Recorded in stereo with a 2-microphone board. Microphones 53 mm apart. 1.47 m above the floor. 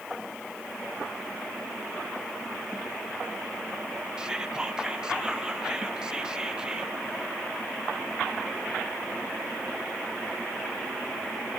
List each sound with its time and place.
4.2 s whispering: 15° right (ahead or behind), 0.9 m